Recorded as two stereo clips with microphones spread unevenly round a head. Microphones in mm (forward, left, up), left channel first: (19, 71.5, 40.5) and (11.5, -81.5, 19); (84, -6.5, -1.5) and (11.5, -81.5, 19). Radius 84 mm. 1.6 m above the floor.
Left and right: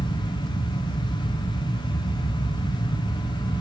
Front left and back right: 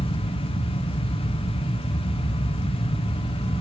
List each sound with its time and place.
0.0 s a fan: 25° left, 1.6 m